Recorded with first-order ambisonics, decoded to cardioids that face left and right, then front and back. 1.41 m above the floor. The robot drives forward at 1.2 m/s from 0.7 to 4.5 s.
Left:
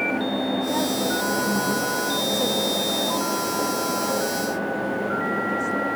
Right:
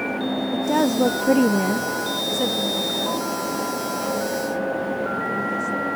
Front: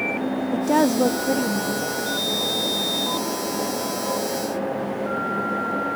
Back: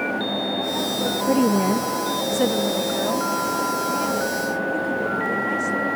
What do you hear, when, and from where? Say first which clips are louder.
0.5 s a woman speaking: right 3 dB, front 4 dB; 30° right; by 5.9 s 175° right